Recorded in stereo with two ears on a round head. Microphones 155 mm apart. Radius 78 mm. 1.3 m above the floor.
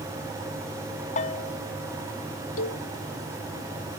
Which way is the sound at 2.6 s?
80° left.